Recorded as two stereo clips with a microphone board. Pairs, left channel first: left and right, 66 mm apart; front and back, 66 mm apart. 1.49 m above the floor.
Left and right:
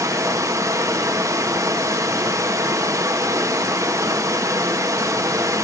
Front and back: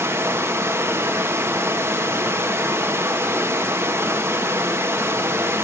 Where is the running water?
125° right, 1.5 m.